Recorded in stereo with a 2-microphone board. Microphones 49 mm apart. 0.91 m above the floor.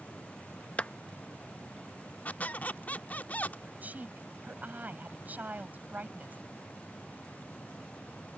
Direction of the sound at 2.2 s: 35° left (ahead or behind).